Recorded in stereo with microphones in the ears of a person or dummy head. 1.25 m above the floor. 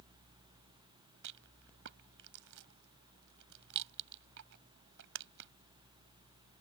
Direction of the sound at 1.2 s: 65° right (ahead or behind).